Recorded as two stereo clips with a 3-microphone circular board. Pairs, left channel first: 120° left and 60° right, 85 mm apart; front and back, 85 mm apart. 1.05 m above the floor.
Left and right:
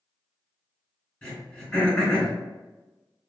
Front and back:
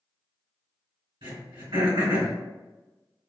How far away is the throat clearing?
About 1.9 m.